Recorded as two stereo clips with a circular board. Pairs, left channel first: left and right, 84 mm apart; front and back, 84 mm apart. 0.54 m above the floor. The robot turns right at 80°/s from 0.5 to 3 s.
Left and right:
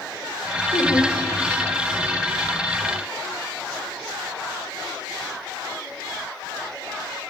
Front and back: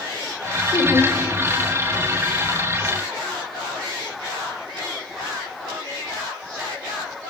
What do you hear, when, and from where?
0.7 s laughter: 30° left, 2 m; by 1.1 s 65° left, 2 m